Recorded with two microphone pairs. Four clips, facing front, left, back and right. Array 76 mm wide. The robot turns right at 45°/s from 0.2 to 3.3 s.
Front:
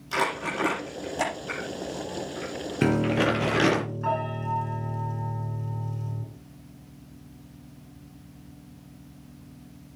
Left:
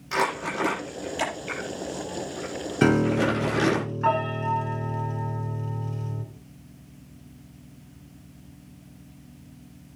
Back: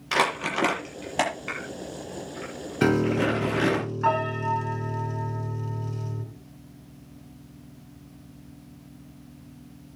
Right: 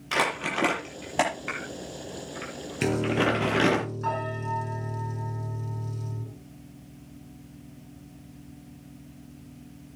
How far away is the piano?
About 1.9 m.